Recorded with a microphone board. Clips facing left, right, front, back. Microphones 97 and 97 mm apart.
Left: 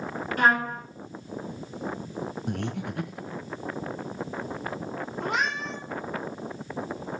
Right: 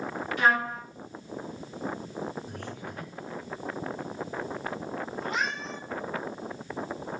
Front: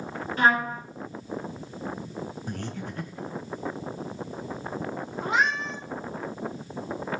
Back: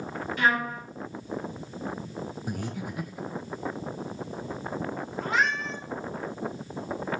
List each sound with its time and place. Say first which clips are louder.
0.4 s a trumpet: left 2 dB, front 3 dB; 50° left, 4 m
2.5 s breathing: left 7 dB, back 1 dB; 100° left, 1.5 m
5.2 s a cat meowing: left 5 dB, front 1 dB; 70° left, 2.5 m